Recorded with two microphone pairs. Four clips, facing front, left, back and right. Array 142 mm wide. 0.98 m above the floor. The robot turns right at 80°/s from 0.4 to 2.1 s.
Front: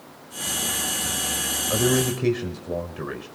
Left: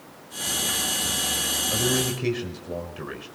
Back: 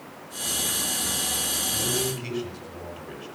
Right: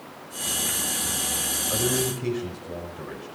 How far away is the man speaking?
About 5 m.